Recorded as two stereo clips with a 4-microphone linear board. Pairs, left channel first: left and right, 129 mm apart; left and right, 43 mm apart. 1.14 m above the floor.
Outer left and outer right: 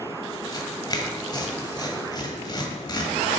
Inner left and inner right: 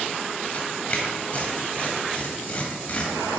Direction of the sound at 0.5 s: 35° left (ahead or behind).